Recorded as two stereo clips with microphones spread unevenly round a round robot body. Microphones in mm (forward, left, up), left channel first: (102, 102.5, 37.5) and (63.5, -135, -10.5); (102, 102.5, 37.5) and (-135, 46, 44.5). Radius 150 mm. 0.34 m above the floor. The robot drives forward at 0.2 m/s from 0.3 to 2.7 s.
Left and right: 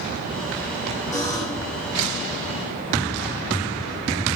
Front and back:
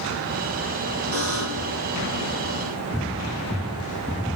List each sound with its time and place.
1.1 s a buzzer: 170° left, 6.5 m